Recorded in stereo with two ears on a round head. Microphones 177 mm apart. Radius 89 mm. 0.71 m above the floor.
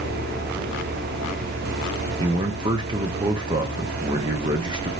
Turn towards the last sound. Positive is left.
turn(degrees=-25)  # may be behind; listen again after turning